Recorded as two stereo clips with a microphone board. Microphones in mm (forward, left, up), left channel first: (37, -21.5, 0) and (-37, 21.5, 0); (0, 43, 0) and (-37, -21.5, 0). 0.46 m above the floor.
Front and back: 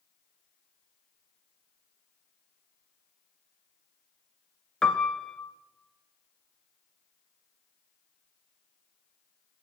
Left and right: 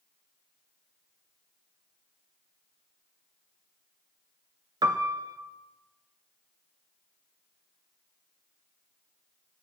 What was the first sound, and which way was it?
A piano, 115° right.